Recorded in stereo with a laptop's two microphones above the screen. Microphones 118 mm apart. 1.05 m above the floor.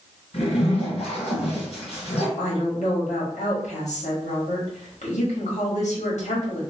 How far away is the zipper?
About 1.9 m.